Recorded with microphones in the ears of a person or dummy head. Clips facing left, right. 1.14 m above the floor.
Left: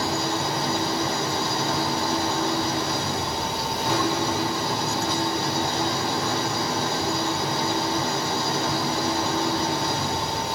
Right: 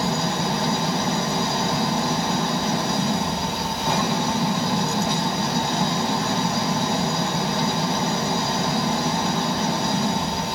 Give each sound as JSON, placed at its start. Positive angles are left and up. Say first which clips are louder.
{"t": 0.0, "sound": "an engine running", "louder": "right 2 dB", "side_deg": -45, "distance_m": 3.5}